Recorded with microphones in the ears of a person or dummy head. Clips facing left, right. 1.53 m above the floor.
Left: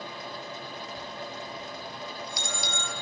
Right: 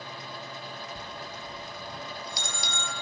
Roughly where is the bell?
Right.